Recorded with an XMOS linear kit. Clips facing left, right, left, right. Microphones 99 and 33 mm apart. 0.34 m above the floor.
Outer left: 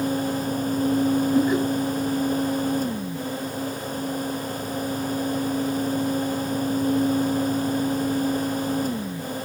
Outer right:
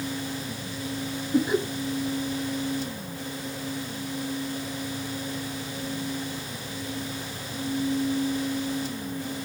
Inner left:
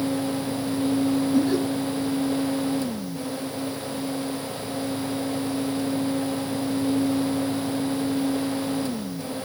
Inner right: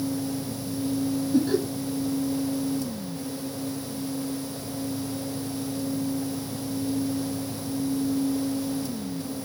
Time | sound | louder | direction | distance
1.3 | laughter | outer right 1 dB, inner right 2 dB | 10° right (ahead or behind) | 6.5 m